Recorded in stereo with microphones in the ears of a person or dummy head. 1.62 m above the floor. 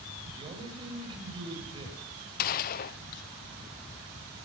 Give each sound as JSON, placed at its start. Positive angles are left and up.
{"t": 0.3, "sound": "a man speaking", "side_deg": -30, "distance_m": 10.0}
{"t": 2.4, "sound": "a gunshot", "side_deg": 45, "distance_m": 0.7}